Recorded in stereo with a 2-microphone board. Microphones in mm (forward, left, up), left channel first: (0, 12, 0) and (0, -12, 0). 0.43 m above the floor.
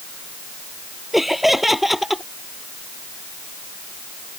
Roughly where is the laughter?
Centre.